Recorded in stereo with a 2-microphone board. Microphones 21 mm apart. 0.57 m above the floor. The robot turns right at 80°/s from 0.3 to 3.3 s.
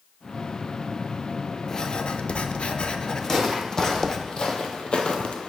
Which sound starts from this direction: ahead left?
Writing, at 1.7 s.